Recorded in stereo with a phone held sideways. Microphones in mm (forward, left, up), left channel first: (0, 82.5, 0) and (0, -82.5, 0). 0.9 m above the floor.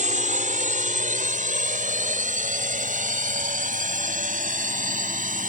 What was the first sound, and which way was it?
A drone, 50° right (ahead or behind).